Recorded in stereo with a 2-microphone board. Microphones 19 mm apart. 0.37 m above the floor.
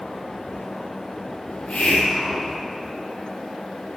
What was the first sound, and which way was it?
A hiss, 65° left (ahead or behind).